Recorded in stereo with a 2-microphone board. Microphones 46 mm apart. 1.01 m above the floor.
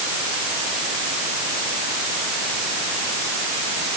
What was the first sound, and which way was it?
Only background noise.